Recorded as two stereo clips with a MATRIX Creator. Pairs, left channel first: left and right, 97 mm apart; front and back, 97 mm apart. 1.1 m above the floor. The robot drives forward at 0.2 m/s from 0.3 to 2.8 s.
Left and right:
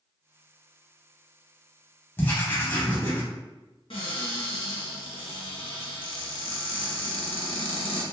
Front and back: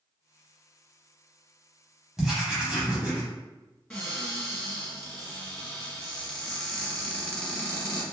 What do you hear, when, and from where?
2.2 s writing: 95° left, 1.0 m; by 3.2 s 115° left, 1.0 m
3.9 s a cupboard door: 80° left, 1.1 m